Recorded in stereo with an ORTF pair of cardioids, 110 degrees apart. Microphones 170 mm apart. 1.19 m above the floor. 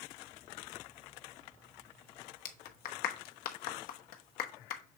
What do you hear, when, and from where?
2.5 s a clap: 60° left, 1.0 m